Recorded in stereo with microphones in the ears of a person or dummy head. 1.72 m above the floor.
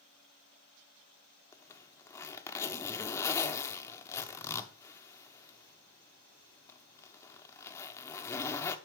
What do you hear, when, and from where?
1.5 s a zipper: 10° left (ahead or behind), 1.0 m